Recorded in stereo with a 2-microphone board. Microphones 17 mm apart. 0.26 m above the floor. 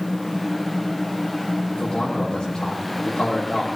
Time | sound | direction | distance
1.7 | a man speaking | 65° left (ahead or behind) | 8 m